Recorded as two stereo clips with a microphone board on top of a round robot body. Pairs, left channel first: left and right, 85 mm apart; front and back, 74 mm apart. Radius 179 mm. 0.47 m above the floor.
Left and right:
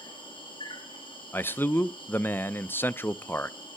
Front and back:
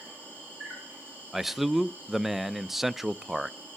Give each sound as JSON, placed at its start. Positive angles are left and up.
{"t": 0.0, "sound": "an insect", "azimuth_deg": 115, "distance_m": 4.0}
{"t": 1.3, "sound": "a man speaking", "azimuth_deg": 100, "distance_m": 0.7}